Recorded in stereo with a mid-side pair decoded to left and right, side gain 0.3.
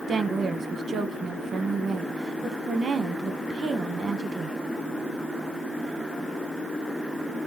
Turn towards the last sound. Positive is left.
turn(degrees=-70)